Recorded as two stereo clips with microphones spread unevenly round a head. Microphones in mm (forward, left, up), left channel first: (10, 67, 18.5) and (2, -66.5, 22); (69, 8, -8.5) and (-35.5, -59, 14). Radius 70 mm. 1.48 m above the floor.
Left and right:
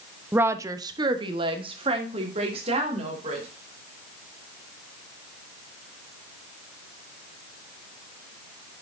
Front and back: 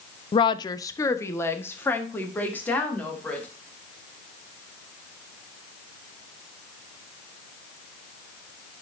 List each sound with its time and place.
0.3 s a woman speaking: 15° right, 0.5 m; by 3.5 s 45° right, 2.5 m